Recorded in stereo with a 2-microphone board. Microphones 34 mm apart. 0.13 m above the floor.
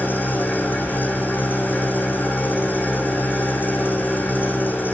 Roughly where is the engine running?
Left.